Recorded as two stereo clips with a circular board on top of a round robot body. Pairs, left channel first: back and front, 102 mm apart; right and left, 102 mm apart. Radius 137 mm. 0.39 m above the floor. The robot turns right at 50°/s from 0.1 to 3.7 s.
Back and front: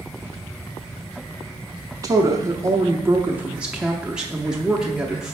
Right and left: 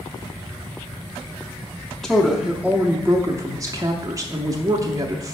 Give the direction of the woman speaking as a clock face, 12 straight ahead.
12 o'clock.